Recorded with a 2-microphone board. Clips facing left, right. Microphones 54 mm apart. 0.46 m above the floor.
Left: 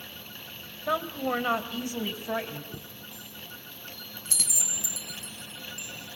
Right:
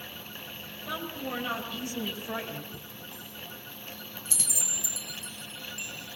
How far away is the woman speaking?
About 2 m.